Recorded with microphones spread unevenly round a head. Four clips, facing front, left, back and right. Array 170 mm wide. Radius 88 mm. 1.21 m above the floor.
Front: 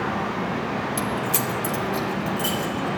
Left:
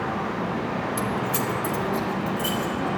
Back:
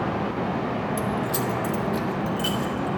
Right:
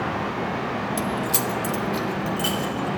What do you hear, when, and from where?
1.0 s keys jangling: 20° right, 1.0 m; by 2.9 s 105° right, 3 m